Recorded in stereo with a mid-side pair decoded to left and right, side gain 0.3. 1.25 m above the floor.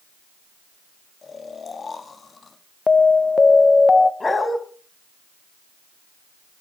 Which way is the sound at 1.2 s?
50° left.